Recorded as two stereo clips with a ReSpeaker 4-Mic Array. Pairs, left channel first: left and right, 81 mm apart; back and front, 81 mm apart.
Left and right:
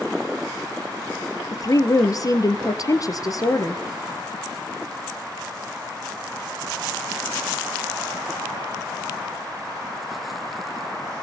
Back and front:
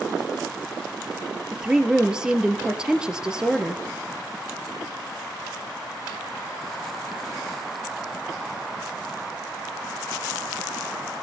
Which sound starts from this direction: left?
A woman speaking, at 1.5 s.